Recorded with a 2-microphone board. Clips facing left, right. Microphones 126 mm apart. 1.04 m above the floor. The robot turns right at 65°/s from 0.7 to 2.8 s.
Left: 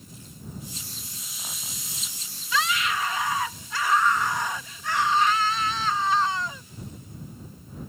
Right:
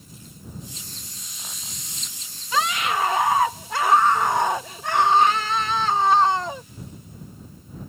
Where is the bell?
I don't hear a bell.